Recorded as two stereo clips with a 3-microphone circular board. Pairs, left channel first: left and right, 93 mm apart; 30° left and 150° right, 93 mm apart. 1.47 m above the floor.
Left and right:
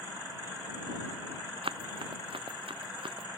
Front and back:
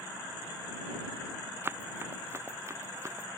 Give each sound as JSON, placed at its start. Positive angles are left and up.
{"t": 1.6, "sound": "running footsteps", "azimuth_deg": -85}